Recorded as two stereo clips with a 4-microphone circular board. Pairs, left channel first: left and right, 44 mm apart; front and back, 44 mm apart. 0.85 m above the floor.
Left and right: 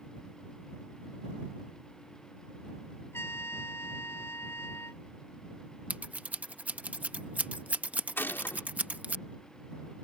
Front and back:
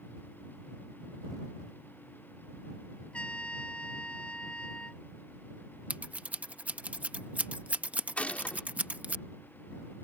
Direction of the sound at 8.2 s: 55° left.